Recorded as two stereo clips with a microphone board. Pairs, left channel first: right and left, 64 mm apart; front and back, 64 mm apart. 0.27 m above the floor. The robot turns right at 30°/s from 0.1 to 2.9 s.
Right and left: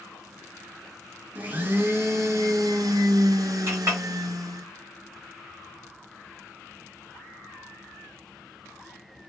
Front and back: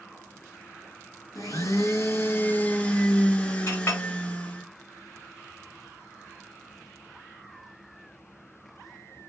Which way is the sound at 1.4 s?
25° left.